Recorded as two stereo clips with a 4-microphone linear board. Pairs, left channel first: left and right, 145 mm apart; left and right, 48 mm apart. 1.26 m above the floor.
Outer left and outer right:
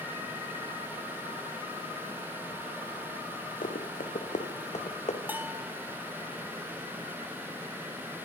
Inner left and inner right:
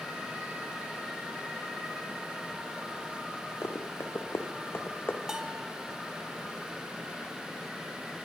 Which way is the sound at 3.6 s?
60° left (ahead or behind).